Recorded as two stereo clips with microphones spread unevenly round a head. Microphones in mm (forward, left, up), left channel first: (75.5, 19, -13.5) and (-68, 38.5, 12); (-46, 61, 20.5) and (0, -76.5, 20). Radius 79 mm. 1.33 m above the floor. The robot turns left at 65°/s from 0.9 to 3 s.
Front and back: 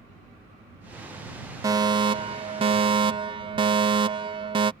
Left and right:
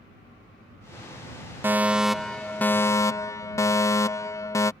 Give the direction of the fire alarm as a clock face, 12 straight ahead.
4 o'clock.